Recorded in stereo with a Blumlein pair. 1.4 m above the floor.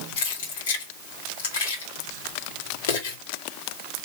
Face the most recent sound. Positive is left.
turn(degrees=60)